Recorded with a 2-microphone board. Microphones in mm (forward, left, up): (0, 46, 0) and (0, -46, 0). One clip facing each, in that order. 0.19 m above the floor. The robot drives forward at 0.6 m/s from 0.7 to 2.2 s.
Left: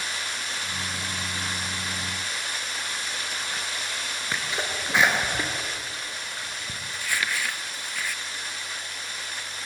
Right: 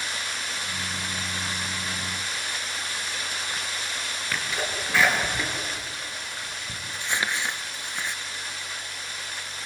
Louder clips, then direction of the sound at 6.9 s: Right 1 dB; 25° right (ahead or behind).